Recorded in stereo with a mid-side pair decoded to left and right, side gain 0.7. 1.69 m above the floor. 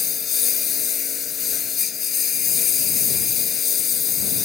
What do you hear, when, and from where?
0.0 s a lawn mower: 35° left